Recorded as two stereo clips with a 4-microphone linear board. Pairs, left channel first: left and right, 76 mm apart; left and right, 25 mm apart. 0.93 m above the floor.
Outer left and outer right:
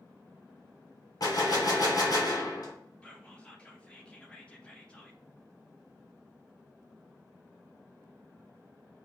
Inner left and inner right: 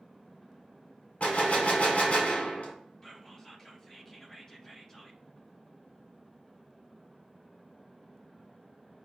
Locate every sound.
1.2 s a gunshot: 55° left (ahead or behind), 1.6 m
3.0 s whispering: 15° left (ahead or behind), 0.9 m